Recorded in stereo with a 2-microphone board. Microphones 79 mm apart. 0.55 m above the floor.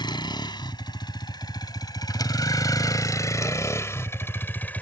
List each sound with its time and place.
0.0 s a vehicle: 65° left (ahead or behind); by 4.8 s 20° left (ahead or behind)